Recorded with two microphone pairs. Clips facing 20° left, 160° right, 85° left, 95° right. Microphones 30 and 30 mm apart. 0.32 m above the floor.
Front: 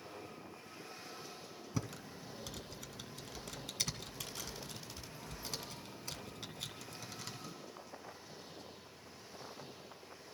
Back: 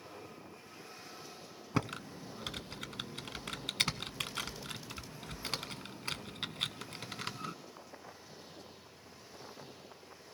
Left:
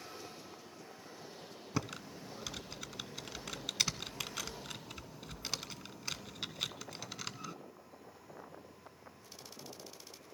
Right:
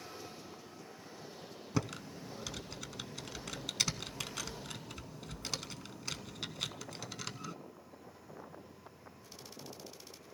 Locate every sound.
1.7 s typing on a keyboard: 175° left, 0.6 m